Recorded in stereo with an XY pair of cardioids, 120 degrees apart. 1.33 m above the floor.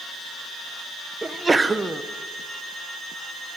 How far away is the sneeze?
About 0.7 m.